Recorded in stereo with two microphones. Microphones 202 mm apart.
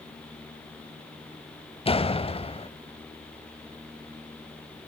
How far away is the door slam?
About 0.9 m.